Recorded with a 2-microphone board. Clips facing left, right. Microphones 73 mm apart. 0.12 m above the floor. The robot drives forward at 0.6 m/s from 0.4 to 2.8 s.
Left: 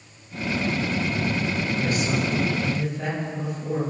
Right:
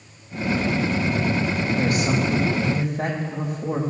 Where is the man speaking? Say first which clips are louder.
Right 4 dB; 65° right (ahead or behind), 5 m; by 3.8 s 60° right (ahead or behind), 5 m.